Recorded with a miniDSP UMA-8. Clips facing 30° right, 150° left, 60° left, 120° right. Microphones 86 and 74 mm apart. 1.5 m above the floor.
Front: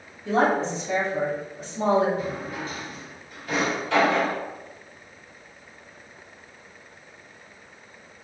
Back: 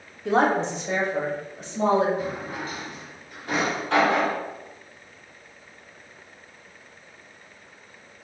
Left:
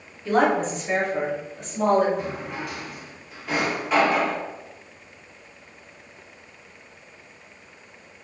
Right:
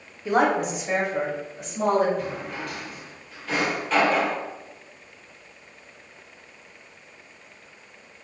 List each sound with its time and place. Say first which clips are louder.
0.2 s a woman speaking: back 1 dB, left 1 dB; 170° left, 0.7 m; by 2.1 s 155° left, 1.8 m
2.2 s a drawer: even, left 1 dB; 135° left, 1.5 m